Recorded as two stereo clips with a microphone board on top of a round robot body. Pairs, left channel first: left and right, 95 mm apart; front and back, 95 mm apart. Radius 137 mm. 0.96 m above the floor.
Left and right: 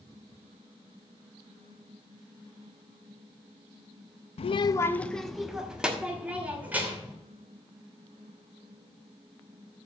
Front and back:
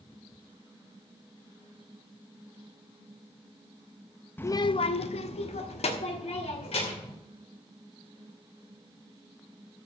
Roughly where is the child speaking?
Left.